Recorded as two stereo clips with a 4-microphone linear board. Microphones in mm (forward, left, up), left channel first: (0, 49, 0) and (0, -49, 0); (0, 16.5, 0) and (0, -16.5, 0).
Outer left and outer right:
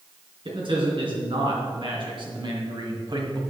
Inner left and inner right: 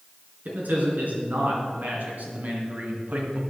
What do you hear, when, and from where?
0.5 s a man speaking: 60° right (ahead or behind), 4 m; by 3.4 s 50° right (ahead or behind), 1.8 m